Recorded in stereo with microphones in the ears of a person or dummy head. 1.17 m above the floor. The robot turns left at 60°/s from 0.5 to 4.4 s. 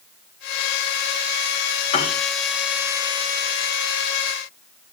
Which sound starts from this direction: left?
A piano, at 1.9 s.